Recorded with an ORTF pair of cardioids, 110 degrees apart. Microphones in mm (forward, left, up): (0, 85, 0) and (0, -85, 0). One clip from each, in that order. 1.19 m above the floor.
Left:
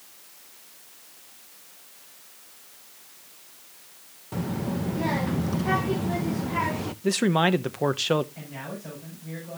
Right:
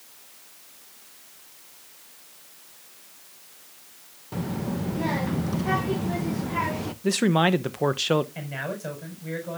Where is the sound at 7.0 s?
5° right, 0.7 m.